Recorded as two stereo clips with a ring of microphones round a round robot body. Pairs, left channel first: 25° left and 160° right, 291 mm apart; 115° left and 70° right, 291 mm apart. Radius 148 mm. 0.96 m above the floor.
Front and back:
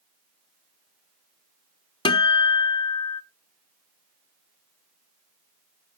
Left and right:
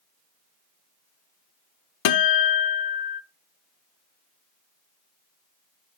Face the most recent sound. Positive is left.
turn(degrees=95)